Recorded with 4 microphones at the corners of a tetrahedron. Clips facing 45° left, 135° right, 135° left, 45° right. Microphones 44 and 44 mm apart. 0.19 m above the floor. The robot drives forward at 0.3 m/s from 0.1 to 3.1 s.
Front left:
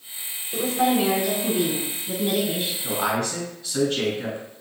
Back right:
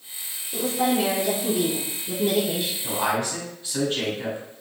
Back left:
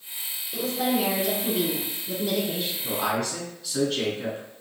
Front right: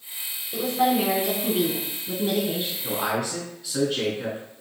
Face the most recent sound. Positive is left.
turn(degrees=-130)